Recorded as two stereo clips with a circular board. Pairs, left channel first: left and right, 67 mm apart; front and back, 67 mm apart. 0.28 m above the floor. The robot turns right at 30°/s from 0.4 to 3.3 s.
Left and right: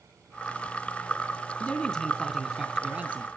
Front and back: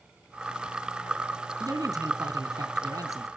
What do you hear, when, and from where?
1.6 s a man speaking: 160° left, 3 m; by 3.3 s 150° right, 3 m